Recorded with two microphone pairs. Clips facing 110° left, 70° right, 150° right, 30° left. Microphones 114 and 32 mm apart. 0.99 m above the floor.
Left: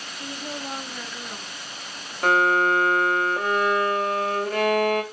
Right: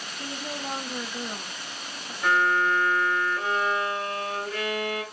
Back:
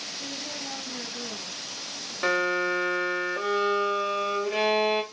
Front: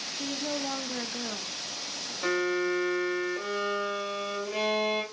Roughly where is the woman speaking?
Ahead.